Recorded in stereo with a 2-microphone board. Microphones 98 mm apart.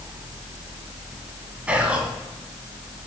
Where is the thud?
No thud in this recording.